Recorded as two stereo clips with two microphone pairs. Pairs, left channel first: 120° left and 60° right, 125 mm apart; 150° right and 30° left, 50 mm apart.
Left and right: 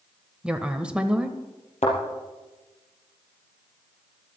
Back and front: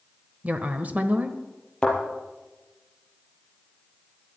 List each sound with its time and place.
0.4 s a woman speaking: 15° left, 1.2 m
1.8 s a thud: 135° left, 4.5 m